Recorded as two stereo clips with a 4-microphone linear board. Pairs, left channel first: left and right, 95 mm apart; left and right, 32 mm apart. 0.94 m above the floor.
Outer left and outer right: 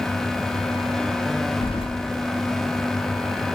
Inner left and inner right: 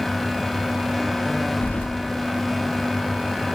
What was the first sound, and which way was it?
Keys jangling, 75° left (ahead or behind).